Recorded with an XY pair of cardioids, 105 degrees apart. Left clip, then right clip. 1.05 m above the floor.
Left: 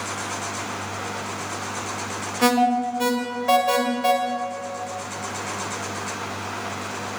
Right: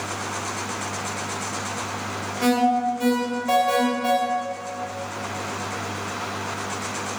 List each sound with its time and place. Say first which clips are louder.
2.4 s an alarm: left 1 dB; 45° left, 2.5 m